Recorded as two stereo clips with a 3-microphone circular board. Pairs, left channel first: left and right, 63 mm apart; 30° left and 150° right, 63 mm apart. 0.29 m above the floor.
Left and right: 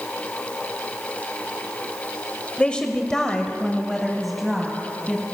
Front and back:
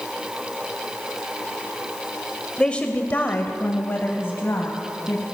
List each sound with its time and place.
2.6 s a woman speaking: 65° left, 0.9 m; by 5.2 s 5° right, 1.8 m